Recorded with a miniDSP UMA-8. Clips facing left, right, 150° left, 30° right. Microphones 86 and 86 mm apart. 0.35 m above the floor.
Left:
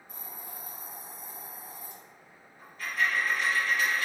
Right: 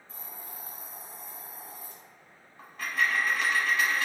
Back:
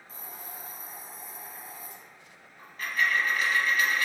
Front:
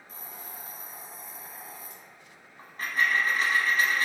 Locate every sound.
0.1 s a hiss: 155° left, 1.2 m
2.6 s a dropped coin: 85° right, 0.8 m